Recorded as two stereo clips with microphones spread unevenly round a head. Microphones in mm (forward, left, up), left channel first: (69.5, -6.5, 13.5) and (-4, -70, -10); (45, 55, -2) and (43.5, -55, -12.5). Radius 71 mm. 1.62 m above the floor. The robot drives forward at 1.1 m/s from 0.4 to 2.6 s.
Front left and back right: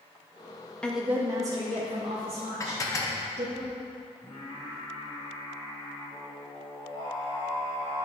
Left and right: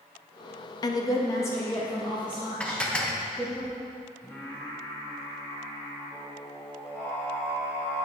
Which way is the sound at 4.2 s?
20° left.